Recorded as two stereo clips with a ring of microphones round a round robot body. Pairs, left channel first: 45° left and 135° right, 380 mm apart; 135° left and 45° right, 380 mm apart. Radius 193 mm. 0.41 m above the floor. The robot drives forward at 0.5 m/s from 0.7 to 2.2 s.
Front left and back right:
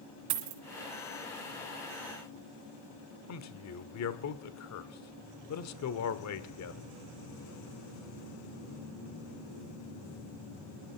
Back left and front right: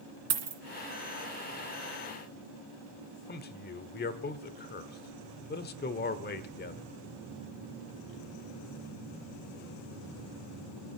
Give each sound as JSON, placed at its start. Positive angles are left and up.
{"t": 0.3, "sound": "a dropped coin", "azimuth_deg": -110, "distance_m": 2.5}
{"t": 3.3, "sound": "a man speaking", "azimuth_deg": 75, "distance_m": 1.0}